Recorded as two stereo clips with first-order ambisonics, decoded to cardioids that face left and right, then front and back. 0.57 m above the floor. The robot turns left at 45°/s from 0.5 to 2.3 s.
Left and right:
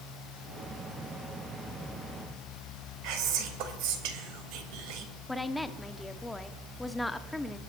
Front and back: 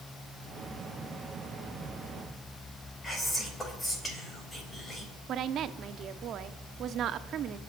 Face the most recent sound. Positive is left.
turn(degrees=170)